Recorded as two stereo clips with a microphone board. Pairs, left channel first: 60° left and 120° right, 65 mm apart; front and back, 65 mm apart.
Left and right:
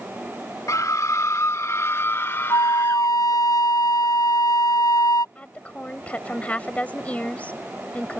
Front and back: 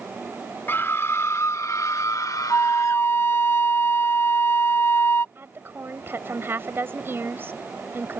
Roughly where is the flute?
Ahead left.